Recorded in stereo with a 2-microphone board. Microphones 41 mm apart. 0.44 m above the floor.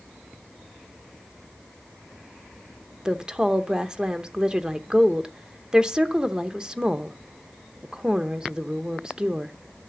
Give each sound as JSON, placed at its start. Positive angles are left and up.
{"t": 3.0, "sound": "a woman speaking", "side_deg": -20, "distance_m": 0.8}